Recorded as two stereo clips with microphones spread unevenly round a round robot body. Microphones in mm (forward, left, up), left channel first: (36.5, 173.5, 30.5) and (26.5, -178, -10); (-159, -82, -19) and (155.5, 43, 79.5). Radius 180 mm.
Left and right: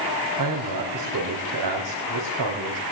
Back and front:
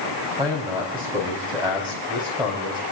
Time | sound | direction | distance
0.4 | a man speaking | 60° right | 4.5 m